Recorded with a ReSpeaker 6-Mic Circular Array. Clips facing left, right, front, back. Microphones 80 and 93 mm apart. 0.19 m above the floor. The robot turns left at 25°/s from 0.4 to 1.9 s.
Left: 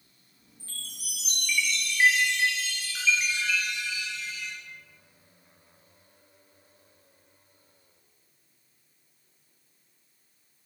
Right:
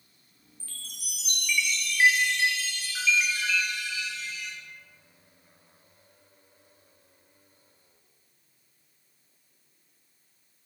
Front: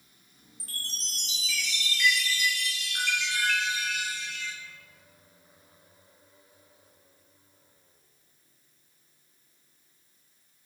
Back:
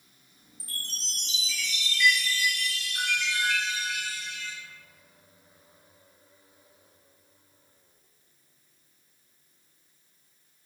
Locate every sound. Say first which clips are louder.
0.6 s a chime: left 2 dB, even; 30° left, 0.6 m; by 4.5 s 5° right, 0.6 m